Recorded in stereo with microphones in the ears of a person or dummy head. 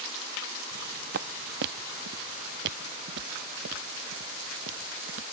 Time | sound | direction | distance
0.7 | footsteps | 60° right (ahead or behind) | ?